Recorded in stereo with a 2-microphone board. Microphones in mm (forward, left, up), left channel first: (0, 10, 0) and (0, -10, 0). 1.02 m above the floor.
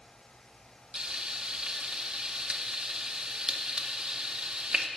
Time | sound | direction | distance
0.9 | frying | 45° right (ahead or behind) | 0.7 m